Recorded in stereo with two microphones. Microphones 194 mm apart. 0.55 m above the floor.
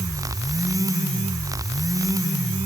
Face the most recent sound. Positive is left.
No sound to turn to.